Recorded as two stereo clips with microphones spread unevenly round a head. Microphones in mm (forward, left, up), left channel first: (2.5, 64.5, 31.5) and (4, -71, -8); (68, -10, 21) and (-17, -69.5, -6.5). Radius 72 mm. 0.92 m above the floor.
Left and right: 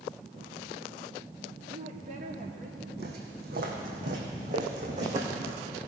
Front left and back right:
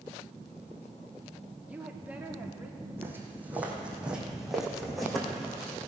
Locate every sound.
1.7 s a woman speaking: 70° right, 1.7 m; by 2.9 s 75° right, 2.5 m
3.0 s footsteps: 75° right, 2.5 m; by 5.8 s 45° right, 3.5 m